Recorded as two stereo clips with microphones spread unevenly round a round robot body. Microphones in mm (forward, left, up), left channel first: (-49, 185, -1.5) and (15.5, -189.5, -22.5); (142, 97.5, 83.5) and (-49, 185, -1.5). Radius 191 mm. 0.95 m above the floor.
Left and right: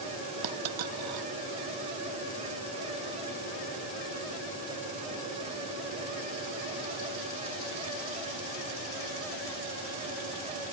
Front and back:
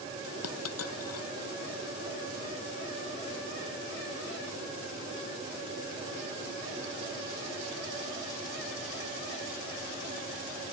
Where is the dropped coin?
45° right.